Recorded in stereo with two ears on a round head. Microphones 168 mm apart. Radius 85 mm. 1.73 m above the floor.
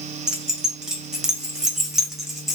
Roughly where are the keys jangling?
Centre.